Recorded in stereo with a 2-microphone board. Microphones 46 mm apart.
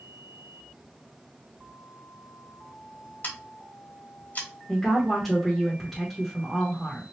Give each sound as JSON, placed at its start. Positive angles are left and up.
{"t": 3.2, "sound": "scissors", "side_deg": 45, "distance_m": 0.9}
{"t": 4.7, "sound": "a woman speaking", "side_deg": 0, "distance_m": 0.9}